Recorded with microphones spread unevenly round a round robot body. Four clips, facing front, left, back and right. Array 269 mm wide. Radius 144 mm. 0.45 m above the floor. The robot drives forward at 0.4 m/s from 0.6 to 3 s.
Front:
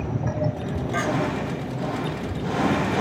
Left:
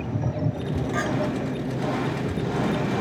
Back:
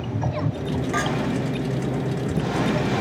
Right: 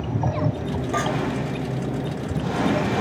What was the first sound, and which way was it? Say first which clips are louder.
A clink: right 4 dB, front 1 dB; 105° right.